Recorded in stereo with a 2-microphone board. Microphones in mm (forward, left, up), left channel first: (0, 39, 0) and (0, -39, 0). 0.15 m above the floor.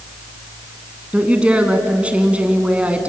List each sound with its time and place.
1.1 s a woman speaking: 15° right (ahead or behind), 1.5 m